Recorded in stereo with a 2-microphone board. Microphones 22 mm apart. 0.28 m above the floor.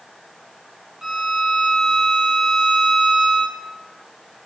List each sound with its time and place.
1.0 s a violin: 40° right (ahead or behind), 4.5 m